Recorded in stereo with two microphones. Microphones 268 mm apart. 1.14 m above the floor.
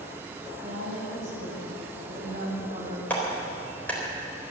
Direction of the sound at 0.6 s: 55° right (ahead or behind).